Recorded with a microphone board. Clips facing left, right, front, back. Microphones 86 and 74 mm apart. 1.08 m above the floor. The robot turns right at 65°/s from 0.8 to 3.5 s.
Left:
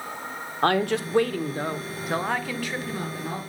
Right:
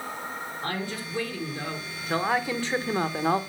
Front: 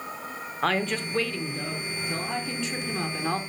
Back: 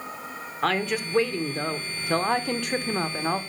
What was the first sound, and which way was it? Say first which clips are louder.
A woman speaking: left 13 dB, back 1 dB; 90° left.